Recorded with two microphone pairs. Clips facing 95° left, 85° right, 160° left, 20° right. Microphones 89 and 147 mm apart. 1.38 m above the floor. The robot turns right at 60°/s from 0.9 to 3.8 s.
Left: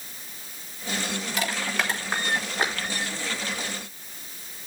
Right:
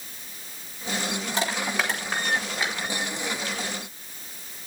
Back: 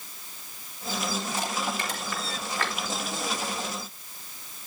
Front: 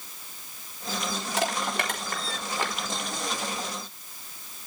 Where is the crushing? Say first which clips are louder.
Right 1 dB, front 2 dB; 25° right, 4 m; by 2.8 s 55° left, 4 m.